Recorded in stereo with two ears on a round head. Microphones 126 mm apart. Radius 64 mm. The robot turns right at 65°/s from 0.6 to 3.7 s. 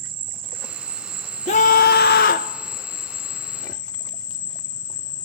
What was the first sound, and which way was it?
An insect, 70° right.